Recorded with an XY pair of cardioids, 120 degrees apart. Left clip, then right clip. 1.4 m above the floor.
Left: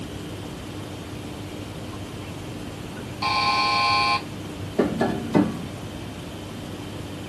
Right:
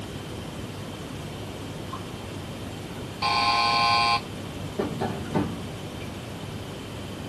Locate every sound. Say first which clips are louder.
3.2 s a buzzer: left 1 dB; 5° right, 0.7 m
4.8 s tapping: left 6 dB; 50° left, 0.7 m